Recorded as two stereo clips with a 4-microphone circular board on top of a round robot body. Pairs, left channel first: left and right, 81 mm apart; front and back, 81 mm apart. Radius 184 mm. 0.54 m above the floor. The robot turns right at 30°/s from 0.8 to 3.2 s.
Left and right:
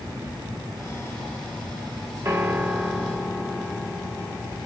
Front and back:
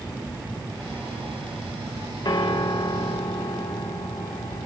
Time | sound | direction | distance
2.2 | a piano | 35° right | 1.6 m